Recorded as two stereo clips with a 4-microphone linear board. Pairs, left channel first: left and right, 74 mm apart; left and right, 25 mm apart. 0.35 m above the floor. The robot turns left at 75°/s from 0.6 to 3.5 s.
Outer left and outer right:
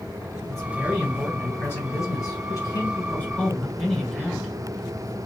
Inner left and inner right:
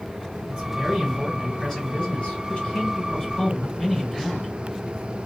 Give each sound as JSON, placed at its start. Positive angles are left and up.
{"t": 0.5, "sound": "a man speaking", "azimuth_deg": -135, "distance_m": 2.0}